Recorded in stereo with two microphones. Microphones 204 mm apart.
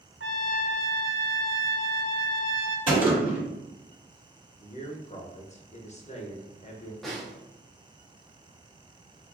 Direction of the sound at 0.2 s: 75° right (ahead or behind).